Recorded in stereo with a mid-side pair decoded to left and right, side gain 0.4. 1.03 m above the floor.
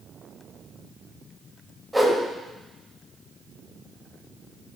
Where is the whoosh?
5° right, 5 m.